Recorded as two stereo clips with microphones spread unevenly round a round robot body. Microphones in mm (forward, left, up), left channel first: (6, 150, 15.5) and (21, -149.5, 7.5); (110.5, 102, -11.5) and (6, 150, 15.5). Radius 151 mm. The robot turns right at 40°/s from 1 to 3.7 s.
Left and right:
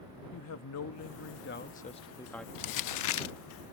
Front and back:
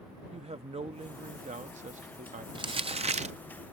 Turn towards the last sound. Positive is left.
turn(degrees=145)